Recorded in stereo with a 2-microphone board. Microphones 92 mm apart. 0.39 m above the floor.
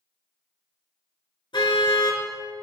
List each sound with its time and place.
1.5 s a car horn: 60° left (ahead or behind), 3.5 m